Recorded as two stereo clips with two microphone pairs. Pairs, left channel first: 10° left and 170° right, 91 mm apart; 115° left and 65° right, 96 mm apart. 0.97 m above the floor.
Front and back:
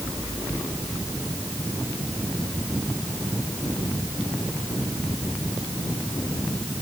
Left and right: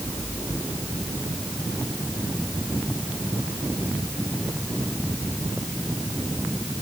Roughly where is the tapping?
No tapping in this recording.